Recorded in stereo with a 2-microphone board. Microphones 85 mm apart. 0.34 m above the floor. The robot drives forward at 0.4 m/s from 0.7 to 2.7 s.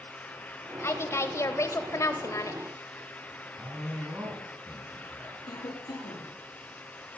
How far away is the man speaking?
About 3 m.